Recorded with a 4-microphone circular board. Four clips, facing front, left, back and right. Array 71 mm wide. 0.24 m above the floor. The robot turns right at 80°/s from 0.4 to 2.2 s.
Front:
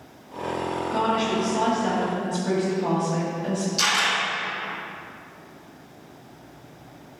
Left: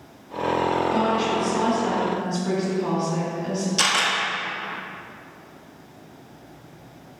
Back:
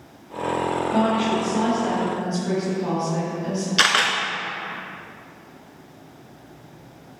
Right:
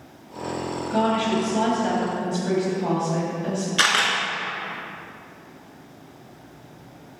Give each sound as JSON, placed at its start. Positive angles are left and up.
{"t": 0.9, "sound": "a woman speaking", "azimuth_deg": -150, "distance_m": 1.7}
{"t": 3.8, "sound": "a camera shutter", "azimuth_deg": -150, "distance_m": 1.1}